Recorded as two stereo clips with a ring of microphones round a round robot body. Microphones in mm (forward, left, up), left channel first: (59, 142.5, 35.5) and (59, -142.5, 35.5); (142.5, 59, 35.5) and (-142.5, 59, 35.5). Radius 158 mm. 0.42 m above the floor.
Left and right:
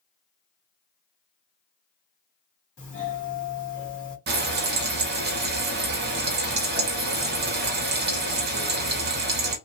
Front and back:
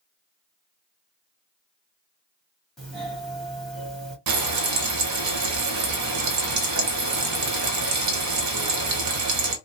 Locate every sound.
2.8 s a doorbell: 90° left, 2 m
4.3 s frying: 145° right, 0.7 m